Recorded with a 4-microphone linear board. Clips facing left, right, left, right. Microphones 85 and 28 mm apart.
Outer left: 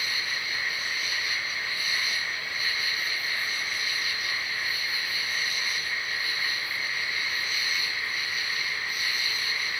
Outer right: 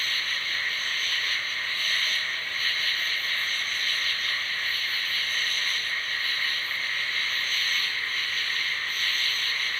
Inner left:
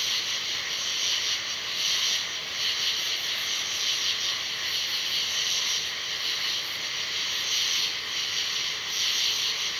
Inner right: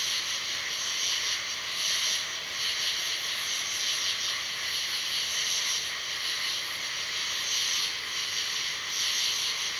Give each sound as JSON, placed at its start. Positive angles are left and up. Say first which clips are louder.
{"t": 0.0, "sound": "an insect", "louder": "outer right 1 dB, inner left 3 dB", "side_deg": 15}